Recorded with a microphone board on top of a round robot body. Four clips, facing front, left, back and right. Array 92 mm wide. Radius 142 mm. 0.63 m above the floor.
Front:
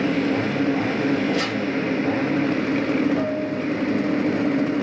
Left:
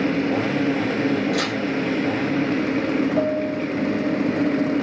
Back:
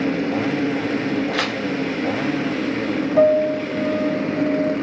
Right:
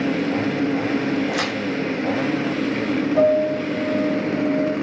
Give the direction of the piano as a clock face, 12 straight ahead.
6 o'clock.